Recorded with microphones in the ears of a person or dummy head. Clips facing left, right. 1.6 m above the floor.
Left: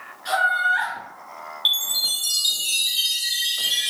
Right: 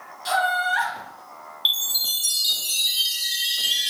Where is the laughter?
80° right, 1.8 m.